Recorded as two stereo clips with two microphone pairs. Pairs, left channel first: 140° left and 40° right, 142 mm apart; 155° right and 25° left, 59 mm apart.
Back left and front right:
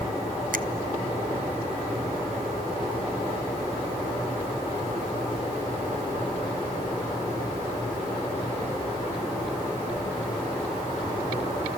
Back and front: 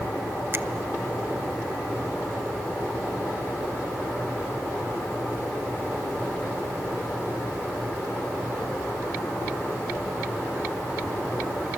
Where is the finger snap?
20° right, 0.9 m.